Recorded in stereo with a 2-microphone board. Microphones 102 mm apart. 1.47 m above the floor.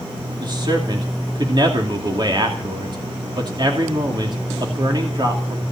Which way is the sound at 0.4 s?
45° right (ahead or behind).